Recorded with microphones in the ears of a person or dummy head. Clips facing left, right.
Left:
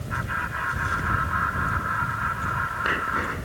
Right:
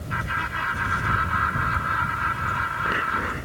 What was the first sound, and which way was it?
Laughter, 50° right (ahead or behind).